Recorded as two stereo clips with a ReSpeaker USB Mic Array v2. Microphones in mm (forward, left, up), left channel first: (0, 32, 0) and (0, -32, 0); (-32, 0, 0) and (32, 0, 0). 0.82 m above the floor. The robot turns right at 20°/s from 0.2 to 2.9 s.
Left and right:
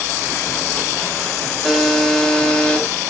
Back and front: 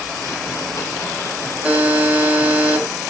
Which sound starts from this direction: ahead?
A buzzer, at 1.6 s.